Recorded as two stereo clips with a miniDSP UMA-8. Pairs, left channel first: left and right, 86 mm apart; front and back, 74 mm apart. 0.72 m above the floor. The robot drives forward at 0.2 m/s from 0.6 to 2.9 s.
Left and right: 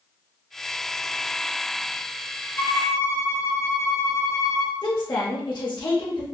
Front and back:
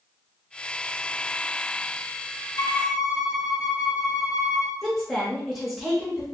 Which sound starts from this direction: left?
A woman speaking, at 4.8 s.